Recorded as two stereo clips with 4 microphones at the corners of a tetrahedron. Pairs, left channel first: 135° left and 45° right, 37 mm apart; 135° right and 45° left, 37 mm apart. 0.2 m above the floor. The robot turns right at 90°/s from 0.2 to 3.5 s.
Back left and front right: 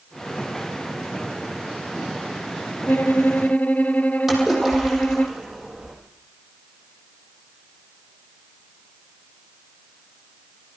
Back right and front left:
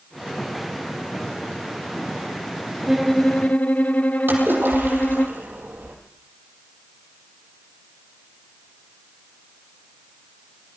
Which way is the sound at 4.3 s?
30° left.